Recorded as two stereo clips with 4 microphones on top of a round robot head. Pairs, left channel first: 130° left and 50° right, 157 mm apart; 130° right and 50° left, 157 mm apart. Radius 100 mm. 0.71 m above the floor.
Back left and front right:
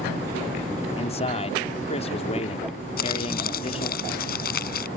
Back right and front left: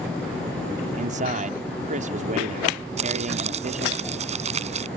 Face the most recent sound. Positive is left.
turn(degrees=100)